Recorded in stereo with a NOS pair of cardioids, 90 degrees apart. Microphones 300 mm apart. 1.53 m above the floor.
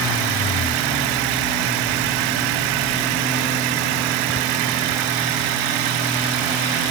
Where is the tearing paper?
No tearing paper in this recording.